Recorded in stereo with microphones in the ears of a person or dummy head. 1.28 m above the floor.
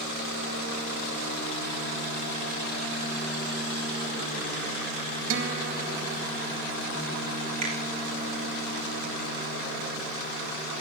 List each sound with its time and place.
5.3 s a guitar: 70° right (ahead or behind), 1.9 m
7.6 s a finger snap: 40° right (ahead or behind), 3.5 m